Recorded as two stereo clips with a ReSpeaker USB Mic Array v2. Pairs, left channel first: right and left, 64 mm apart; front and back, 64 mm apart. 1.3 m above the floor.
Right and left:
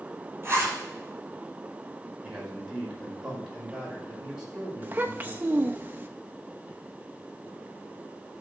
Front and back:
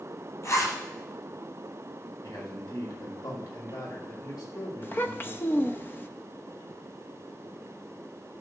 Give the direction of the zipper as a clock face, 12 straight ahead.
11 o'clock.